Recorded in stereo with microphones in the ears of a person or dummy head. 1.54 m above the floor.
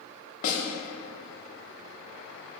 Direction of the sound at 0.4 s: 50° left (ahead or behind).